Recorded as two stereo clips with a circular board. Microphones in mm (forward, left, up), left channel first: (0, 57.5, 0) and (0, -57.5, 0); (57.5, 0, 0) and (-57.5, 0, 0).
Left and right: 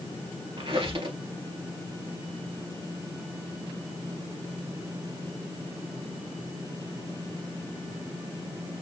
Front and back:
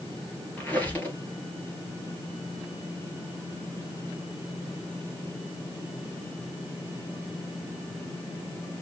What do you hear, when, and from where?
0.6 s a squeak: 75° right, 2.0 m